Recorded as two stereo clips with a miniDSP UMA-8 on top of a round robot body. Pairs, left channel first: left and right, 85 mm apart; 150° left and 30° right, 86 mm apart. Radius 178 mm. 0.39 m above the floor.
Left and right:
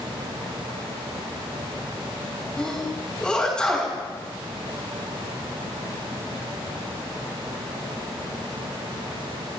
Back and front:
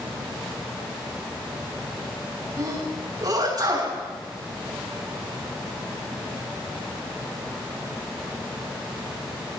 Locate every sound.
2.6 s a sneeze: 10° left, 7.5 m